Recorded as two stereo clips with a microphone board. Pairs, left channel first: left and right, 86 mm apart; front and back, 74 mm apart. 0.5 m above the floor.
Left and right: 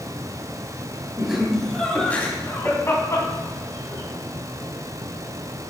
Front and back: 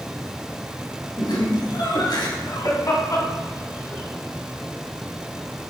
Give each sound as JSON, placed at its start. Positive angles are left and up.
{"t": 1.2, "sound": "laughter", "azimuth_deg": -10, "distance_m": 3.0}